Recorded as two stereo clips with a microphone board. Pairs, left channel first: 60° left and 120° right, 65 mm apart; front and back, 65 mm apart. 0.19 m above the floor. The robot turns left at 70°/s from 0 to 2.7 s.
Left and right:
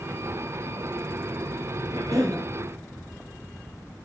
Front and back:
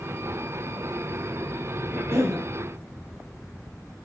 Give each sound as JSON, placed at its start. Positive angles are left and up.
{"t": 1.9, "sound": "a cough", "azimuth_deg": -120, "distance_m": 3.5}